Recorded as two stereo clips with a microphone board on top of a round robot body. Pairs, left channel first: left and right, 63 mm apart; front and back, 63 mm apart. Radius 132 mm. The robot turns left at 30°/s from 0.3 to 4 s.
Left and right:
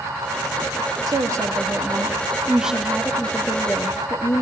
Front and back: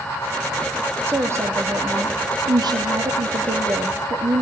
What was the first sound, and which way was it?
A woman speaking, 125° right.